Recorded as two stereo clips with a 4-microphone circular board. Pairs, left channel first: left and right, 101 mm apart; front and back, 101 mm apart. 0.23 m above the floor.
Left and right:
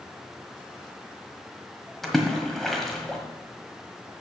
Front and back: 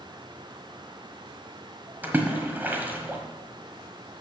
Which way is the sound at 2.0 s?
170° left.